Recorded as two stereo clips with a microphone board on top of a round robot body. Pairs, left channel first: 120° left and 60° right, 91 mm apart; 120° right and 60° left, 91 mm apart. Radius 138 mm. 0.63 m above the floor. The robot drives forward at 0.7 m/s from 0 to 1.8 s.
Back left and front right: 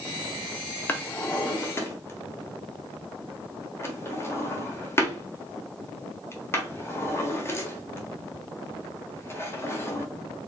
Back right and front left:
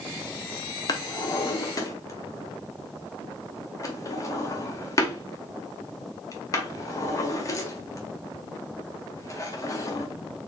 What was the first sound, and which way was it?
A drawer, 165° right.